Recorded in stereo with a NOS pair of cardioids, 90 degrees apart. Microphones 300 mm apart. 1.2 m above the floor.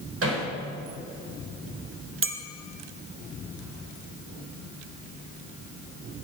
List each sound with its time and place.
0.2 s hammering: 50° right, 4 m
2.2 s a clink: 45° right, 1.0 m